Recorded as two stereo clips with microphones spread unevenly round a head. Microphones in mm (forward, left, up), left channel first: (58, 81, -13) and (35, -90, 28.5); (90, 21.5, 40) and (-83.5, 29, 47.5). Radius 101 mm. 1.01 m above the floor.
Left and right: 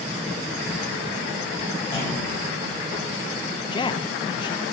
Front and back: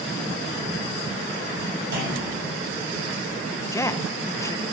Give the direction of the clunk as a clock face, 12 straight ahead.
7 o'clock.